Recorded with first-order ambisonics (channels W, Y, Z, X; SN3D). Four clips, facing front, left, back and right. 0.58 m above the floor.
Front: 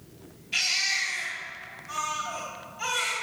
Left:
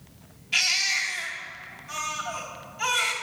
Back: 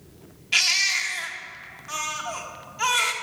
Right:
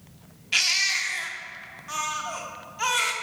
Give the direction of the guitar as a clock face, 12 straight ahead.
No guitar in this recording.